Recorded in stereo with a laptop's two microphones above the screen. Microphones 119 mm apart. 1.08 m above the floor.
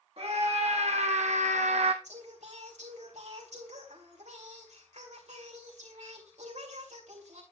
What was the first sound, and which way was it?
A scream, 55° right (ahead or behind).